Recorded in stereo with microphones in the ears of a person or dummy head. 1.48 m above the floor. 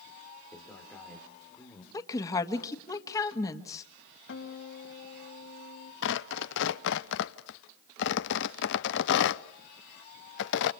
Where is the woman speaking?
20° left (ahead or behind), 1.6 m.